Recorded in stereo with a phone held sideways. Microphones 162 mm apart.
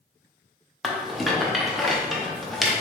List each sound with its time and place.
0.8 s a rattle: centre (ahead or behind), 0.7 m